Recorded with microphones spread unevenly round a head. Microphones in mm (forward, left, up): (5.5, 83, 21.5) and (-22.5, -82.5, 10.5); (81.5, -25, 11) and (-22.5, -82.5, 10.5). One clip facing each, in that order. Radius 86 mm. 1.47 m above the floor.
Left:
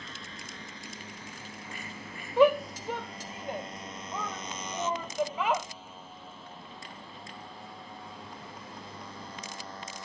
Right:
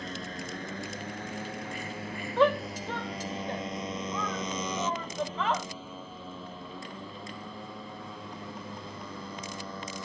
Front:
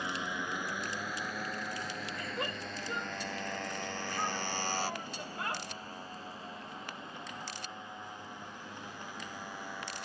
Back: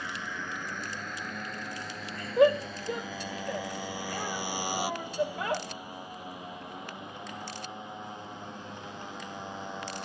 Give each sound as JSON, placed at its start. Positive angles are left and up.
{"t": 0.0, "sound": "a motorcycle", "azimuth_deg": -45}
{"t": 2.4, "sound": "a shout", "azimuth_deg": 160}